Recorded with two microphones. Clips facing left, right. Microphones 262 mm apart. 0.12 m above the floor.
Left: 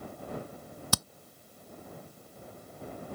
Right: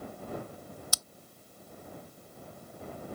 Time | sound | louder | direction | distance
0.9 | hammering | left 13 dB | 70° left (ahead or behind) | ?